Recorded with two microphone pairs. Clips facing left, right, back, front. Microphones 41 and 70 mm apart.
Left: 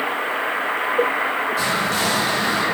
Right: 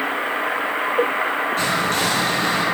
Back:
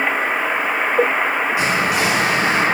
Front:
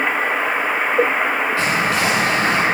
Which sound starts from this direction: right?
Whispering, at 1.6 s.